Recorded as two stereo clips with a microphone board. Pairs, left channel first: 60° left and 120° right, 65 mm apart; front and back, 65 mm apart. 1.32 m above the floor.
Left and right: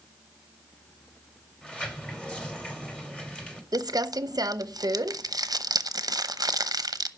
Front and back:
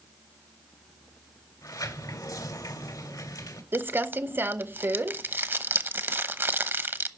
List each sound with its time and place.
1.6 s a sliding door: 15° right, 2.5 m
3.7 s crumpling: 125° right, 0.8 m